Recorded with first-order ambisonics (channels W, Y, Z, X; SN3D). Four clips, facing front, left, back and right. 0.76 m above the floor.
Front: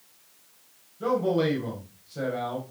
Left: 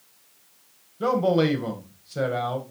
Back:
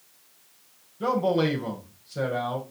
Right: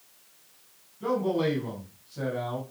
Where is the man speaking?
105° left, 3.5 m.